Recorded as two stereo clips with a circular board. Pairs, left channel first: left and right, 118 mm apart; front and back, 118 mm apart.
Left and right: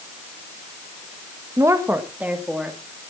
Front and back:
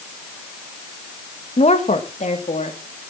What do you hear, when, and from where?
1.6 s a woman speaking: 30° right, 1.6 m; by 2.8 s 5° right, 3.5 m